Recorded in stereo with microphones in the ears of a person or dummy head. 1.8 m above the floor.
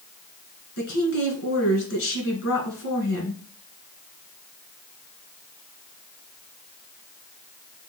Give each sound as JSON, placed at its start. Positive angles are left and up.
{"t": 0.8, "sound": "a woman speaking", "side_deg": 60, "distance_m": 2.5}